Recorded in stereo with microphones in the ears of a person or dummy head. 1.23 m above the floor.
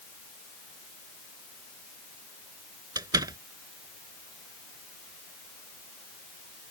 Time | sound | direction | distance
3.0 | a door slam | 25° right (ahead or behind) | ?